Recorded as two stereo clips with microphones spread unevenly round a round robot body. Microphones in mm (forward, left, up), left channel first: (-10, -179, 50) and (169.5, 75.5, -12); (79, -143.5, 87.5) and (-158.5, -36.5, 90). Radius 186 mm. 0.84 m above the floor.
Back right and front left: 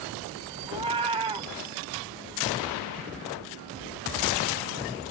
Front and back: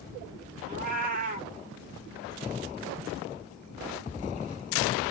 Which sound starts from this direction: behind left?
A cat meowing, at 0.7 s.